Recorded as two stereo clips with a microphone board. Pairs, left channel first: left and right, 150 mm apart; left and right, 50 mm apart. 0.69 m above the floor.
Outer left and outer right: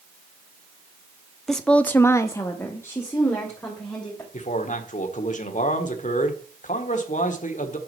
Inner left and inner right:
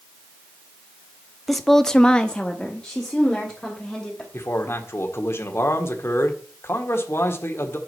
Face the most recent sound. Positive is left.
turn(degrees=55)  # may be behind; listen again after turning